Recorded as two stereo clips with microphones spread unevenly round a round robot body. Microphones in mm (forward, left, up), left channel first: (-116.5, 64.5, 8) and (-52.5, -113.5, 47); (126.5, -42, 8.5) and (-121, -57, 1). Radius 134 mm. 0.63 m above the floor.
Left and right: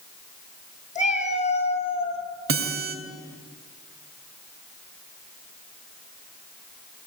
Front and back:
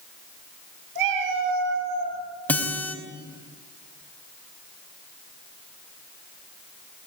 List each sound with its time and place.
0.9 s a cat meowing: 165° left, 5.5 m; by 2.2 s 170° left, 6 m
2.5 s a guitar: 80° right, 4 m